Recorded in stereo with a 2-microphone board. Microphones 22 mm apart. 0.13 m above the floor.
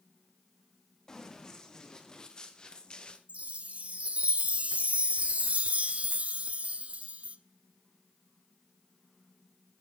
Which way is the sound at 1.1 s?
25° left (ahead or behind).